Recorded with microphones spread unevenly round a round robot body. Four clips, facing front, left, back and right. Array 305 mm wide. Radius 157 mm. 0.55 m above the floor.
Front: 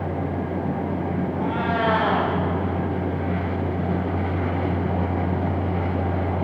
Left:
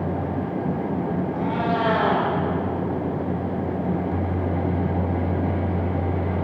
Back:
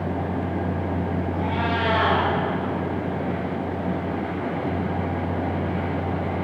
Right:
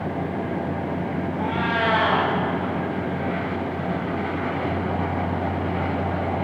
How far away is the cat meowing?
About 9.5 m.